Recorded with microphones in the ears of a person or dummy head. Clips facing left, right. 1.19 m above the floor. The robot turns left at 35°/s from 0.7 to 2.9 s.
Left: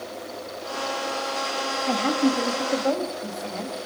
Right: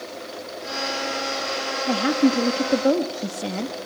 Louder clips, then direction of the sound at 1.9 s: Right 3 dB; 15° right.